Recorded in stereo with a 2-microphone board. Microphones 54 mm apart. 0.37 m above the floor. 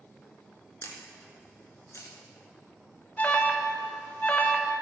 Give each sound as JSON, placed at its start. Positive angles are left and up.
{"t": 0.8, "sound": "a camera shutter", "side_deg": 60, "distance_m": 2.0}
{"t": 3.2, "sound": "an alarm", "side_deg": 30, "distance_m": 1.0}